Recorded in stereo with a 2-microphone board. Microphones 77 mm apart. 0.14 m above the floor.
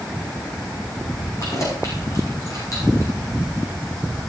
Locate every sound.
1.4 s keys jangling: 45° left (ahead or behind), 6.5 m